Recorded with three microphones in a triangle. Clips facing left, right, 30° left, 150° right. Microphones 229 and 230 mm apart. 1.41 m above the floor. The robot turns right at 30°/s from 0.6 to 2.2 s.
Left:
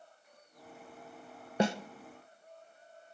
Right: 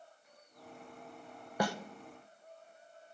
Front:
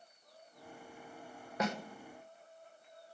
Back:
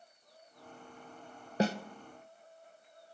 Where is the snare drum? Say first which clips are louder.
Left 5 dB, back 6 dB; 155° left, 0.6 m; by 1.8 s 160° left, 0.6 m.